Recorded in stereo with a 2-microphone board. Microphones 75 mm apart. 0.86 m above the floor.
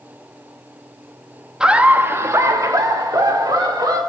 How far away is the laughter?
About 1.1 m.